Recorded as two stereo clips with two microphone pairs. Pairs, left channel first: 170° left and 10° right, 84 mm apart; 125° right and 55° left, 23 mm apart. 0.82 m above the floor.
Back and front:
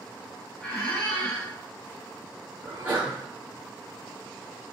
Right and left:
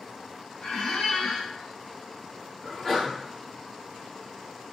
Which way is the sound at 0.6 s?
110° right.